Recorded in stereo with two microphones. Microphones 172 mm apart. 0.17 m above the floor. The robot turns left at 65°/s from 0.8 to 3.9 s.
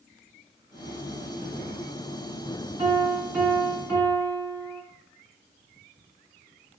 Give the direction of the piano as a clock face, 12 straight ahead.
4 o'clock.